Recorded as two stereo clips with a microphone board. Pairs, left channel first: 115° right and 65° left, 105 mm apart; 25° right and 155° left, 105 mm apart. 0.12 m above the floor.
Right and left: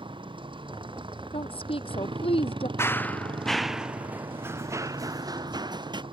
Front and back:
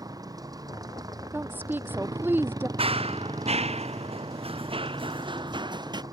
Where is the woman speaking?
135° right.